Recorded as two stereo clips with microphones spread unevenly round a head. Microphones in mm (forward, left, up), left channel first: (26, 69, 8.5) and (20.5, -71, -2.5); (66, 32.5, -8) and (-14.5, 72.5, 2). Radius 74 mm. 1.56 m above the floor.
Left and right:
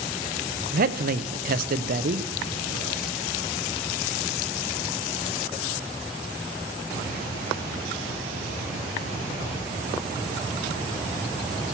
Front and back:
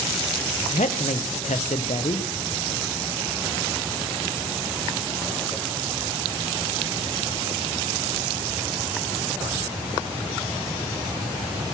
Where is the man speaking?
65° right, 0.9 m.